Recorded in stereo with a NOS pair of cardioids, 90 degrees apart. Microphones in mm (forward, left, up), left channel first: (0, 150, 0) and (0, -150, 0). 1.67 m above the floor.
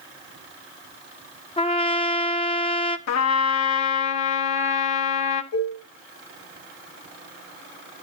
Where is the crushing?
No crushing in this recording.